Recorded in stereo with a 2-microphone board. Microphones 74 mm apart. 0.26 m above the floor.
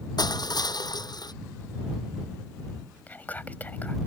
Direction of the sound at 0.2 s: 70° left (ahead or behind).